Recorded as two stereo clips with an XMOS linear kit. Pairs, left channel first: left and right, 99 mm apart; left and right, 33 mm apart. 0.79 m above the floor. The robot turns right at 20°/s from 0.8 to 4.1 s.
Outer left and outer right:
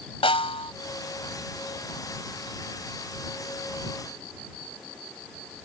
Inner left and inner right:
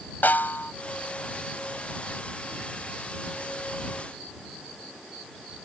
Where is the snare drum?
70° left (ahead or behind).